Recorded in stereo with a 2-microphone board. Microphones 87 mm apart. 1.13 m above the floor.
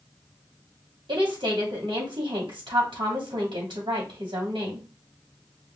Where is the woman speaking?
80° right, 2.5 m.